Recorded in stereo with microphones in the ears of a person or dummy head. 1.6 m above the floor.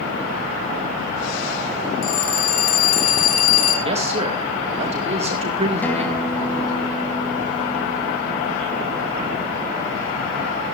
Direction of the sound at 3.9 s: 30° right (ahead or behind).